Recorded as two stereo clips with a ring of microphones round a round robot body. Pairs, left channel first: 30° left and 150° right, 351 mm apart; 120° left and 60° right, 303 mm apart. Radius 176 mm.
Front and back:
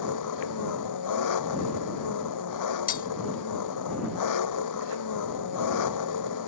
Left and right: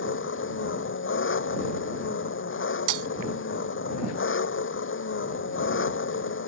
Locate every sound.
0.0 s an engine running: 70° left
2.9 s breaking glass: 35° right